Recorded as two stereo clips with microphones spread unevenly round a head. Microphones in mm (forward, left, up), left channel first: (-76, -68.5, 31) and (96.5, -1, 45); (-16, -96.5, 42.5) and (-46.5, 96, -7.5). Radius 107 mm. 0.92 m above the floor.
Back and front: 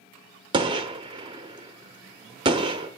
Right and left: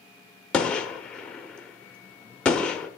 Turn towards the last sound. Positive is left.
turn(degrees=-20)